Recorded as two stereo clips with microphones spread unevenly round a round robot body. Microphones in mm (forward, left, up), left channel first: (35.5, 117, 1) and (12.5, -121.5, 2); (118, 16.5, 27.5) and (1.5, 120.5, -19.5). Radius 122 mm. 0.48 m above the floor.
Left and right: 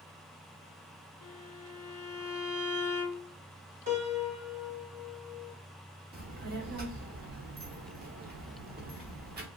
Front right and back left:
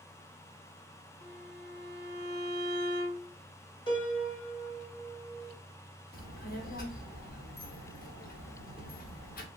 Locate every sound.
1.2 s a violin: 140° right, 1.9 m
3.9 s a piano: 100° right, 1.1 m
6.1 s a child speaking: 70° right, 0.9 m